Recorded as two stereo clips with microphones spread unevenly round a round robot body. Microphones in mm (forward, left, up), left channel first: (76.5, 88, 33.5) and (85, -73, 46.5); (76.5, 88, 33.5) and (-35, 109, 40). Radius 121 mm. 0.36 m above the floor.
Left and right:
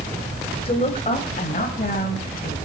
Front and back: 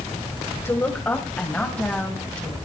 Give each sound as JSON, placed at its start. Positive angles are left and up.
{"t": 0.7, "sound": "a woman speaking", "azimuth_deg": 50, "distance_m": 2.0}